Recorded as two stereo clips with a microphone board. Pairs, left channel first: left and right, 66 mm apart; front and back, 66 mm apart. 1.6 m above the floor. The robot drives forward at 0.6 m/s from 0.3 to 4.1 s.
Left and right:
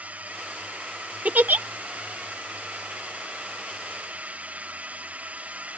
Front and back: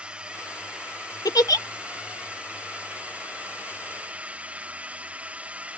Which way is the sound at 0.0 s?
130° right.